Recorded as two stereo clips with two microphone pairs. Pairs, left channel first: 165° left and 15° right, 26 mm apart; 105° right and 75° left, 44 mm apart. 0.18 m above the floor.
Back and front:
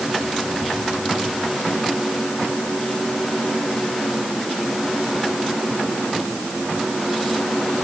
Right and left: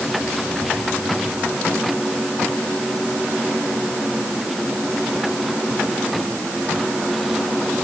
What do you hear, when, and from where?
Only background noise.